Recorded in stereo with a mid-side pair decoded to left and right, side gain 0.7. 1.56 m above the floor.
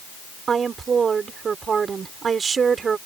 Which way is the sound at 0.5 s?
30° right.